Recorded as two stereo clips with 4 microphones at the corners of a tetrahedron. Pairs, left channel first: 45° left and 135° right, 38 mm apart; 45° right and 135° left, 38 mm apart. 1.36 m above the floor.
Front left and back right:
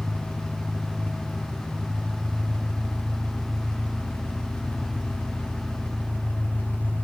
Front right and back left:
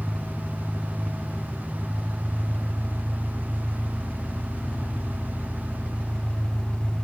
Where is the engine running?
10° left, 1.9 m.